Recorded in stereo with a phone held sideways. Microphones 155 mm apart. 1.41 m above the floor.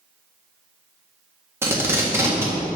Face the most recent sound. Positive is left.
turn(degrees=-15)  # may be behind; listen again after turning